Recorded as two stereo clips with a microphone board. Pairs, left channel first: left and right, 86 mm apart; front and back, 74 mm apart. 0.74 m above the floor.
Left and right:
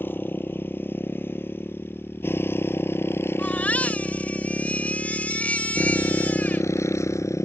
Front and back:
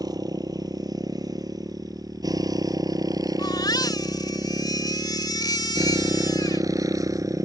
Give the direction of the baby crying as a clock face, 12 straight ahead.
11 o'clock.